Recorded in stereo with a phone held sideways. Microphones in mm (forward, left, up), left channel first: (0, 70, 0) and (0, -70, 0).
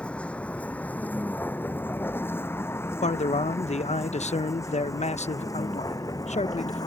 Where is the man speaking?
55° left (ahead or behind).